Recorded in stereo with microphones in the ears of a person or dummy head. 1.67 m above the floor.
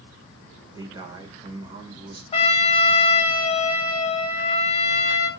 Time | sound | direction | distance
0.8 | a man speaking | 25° right (ahead or behind) | 1.4 m
2.3 | a trumpet | 35° left (ahead or behind) | 1.0 m